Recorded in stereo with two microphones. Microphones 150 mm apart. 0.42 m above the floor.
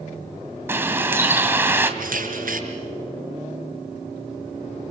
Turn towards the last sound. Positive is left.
turn(degrees=-75)  # may be behind; listen again after turning